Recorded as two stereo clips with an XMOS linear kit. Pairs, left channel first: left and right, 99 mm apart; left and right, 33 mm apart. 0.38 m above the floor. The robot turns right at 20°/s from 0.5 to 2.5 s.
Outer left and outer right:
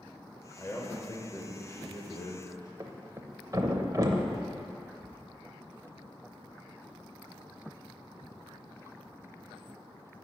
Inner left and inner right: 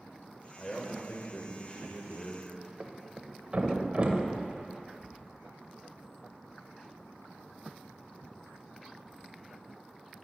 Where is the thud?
35° right (ahead or behind), 0.6 m.